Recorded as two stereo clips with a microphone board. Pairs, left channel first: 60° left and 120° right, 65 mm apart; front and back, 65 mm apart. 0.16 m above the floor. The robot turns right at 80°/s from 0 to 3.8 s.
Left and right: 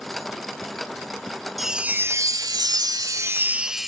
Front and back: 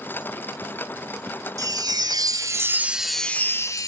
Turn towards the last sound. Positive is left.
turn(degrees=-35)